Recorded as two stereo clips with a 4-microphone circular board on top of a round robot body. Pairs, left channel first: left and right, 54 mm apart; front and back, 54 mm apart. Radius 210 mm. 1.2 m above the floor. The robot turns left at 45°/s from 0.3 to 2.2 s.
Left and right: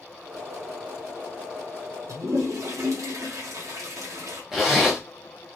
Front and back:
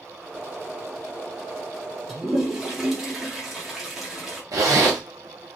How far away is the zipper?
About 0.7 m.